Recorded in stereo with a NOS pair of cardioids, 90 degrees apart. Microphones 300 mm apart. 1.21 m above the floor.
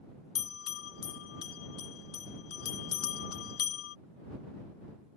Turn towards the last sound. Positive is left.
turn(degrees=55)